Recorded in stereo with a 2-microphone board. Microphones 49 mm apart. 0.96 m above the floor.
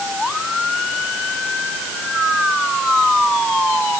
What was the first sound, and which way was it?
Only background noise.